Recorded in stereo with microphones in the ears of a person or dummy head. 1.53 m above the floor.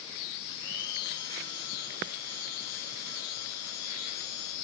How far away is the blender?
About 9.5 m.